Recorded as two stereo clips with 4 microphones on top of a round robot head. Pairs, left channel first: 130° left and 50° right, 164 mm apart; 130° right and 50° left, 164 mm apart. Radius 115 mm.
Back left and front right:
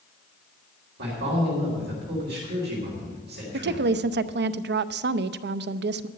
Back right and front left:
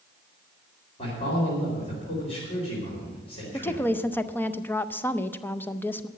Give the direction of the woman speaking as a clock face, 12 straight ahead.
2 o'clock.